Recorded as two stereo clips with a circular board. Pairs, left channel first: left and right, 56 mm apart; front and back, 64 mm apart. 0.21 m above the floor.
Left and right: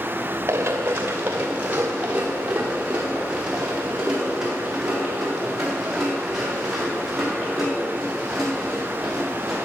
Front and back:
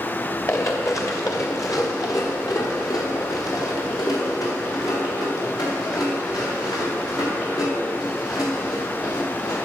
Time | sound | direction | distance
0.5 | running footsteps | 45° right | 2 m